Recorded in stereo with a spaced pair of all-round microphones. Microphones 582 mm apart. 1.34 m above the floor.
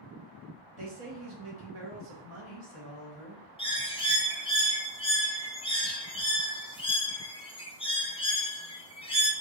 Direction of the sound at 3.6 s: 10° left (ahead or behind).